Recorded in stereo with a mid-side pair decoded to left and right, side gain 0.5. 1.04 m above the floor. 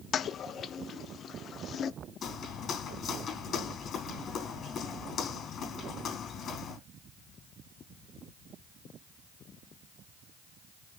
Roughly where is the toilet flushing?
Ahead left.